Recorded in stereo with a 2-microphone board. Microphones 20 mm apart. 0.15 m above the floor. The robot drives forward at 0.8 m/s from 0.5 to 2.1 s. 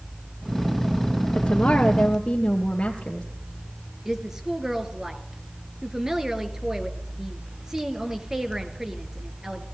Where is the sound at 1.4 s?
60° left (ahead or behind), 3 m; by 3.2 s 65° left (ahead or behind), 2.5 m.